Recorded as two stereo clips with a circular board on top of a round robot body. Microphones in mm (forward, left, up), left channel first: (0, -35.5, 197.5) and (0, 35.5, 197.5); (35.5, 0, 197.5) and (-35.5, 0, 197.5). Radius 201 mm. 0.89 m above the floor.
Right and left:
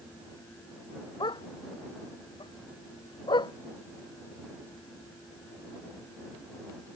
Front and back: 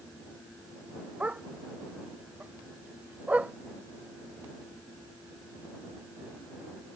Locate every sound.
1.2 s a dog barking: 105° right